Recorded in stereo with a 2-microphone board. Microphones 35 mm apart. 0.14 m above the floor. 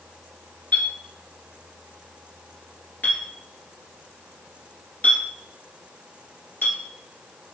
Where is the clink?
50° left (ahead or behind), 1.5 m.